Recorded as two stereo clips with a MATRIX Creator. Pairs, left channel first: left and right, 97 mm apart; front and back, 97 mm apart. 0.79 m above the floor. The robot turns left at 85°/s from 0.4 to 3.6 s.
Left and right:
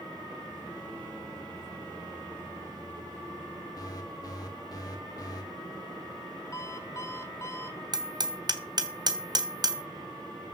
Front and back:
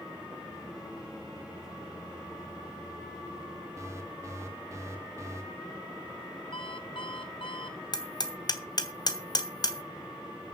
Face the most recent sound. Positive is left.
turn(degrees=-45)